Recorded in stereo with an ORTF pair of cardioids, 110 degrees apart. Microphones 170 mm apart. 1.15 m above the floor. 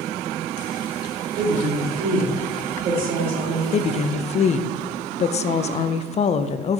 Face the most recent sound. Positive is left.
turn(degrees=40)